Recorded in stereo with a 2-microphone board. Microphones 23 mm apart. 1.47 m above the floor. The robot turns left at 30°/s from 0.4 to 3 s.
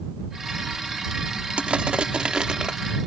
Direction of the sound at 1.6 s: 110° right.